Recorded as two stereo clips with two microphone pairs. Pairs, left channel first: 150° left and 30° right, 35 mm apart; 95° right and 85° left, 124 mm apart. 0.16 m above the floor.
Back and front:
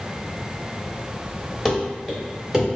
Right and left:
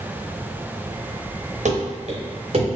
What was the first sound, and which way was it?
Running footsteps, 65° left.